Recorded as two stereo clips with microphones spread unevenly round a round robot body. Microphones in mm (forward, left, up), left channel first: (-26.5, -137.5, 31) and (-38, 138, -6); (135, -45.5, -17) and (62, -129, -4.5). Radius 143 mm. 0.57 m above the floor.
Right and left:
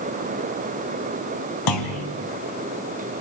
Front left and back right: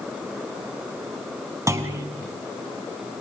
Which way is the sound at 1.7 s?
70° right.